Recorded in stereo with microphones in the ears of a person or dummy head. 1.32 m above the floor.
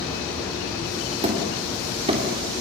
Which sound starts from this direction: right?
Hammering, at 1.2 s.